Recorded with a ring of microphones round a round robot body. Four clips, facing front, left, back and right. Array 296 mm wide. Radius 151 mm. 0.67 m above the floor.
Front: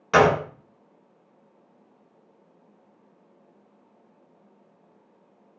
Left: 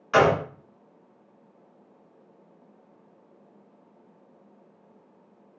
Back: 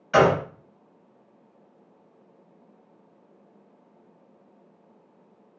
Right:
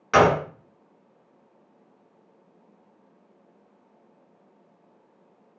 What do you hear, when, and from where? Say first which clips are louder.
0.1 s a gunshot: right 2 dB, front 1 dB; 30° right, 1.1 m